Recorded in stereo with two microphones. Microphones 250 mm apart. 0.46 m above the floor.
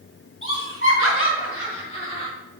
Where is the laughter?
50° left (ahead or behind), 3.5 m; by 2.3 s 20° left (ahead or behind), 1.7 m.